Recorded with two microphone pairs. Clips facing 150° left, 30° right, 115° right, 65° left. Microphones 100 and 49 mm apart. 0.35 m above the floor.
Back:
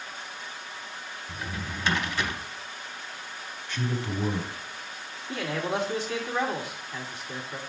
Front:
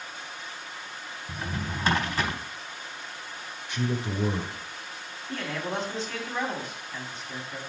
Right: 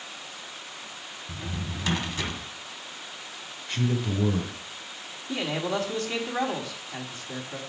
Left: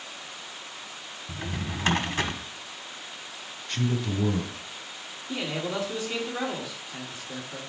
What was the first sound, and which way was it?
A drawer, 20° left.